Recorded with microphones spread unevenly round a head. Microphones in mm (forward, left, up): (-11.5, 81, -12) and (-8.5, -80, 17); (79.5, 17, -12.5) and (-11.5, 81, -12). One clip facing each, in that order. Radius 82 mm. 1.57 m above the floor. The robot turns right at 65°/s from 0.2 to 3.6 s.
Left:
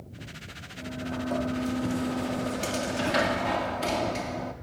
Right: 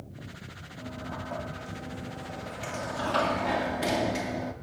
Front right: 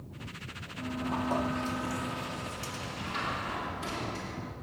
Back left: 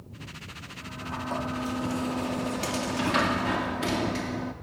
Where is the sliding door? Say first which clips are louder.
Left 6 dB, front right 4 dB; 10° left, 3 m; by 4.5 s 170° right, 3 m.